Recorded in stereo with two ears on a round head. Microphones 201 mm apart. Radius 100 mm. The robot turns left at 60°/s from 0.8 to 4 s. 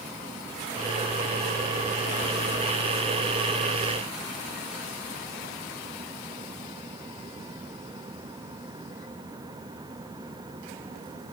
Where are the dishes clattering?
No dishes clattering in this recording.